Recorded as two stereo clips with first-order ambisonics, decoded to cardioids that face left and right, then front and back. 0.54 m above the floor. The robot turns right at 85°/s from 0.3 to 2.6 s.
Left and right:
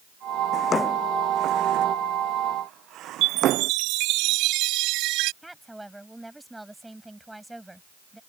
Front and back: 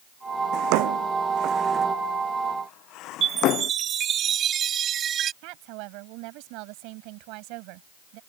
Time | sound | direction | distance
0.5 | a drawer | 145° left | ?
3.2 | a chime | 120° right | ?
5.4 | a woman speaking | 175° right | ?